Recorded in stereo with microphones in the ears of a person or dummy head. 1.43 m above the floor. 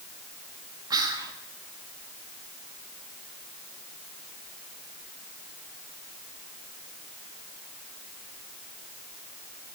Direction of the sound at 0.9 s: 25° right (ahead or behind).